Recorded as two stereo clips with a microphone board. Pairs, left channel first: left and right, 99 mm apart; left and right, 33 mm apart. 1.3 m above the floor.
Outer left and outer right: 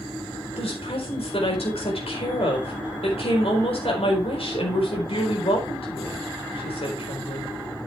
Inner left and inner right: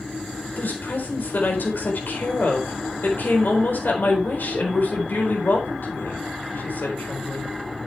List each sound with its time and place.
0.6 s a woman speaking: 75° left (ahead or behind), 4 m